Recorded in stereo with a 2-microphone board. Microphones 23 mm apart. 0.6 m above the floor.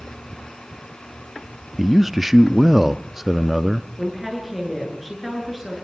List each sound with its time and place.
1.8 s a man speaking: 10° right (ahead or behind), 0.5 m
4.0 s a woman speaking: 5° right (ahead or behind), 9.5 m